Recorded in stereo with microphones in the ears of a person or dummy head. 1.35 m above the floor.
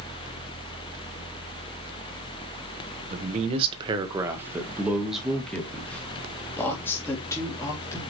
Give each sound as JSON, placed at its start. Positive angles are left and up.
{"t": 3.1, "sound": "a woman speaking", "side_deg": -45, "distance_m": 1.4}